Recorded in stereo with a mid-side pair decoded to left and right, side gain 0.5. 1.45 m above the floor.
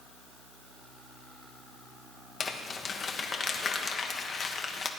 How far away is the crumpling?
About 1.2 m.